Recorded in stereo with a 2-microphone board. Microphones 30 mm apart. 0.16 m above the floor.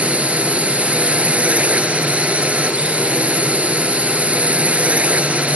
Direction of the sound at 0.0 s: 45° right (ahead or behind).